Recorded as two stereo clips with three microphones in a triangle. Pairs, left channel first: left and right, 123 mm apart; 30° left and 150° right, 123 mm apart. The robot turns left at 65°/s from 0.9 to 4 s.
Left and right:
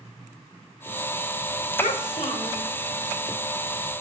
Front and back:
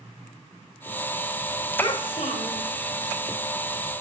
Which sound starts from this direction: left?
A child speaking, at 1.8 s.